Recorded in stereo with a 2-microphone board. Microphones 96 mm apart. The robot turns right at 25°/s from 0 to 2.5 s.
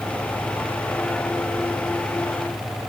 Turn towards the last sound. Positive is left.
No sound to turn to.